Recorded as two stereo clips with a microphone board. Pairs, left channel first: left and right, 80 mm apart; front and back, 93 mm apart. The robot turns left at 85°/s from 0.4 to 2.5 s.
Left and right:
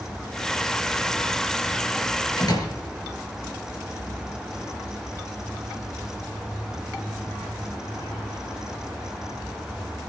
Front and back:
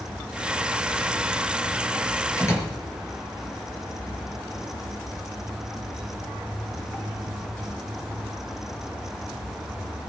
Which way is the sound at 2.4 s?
60° left.